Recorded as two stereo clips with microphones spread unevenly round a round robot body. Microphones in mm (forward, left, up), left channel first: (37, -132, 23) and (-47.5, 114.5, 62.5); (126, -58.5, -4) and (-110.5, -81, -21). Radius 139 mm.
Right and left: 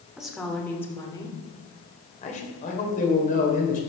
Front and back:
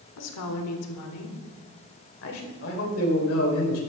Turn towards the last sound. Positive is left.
turn(degrees=-15)